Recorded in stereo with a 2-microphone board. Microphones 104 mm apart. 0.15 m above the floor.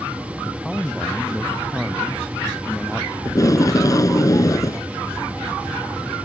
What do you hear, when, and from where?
0.5 s a man speaking: centre (ahead or behind)
3.2 s tape being pulled: 35° left (ahead or behind)